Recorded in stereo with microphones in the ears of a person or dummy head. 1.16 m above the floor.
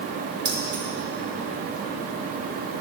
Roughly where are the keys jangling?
Right.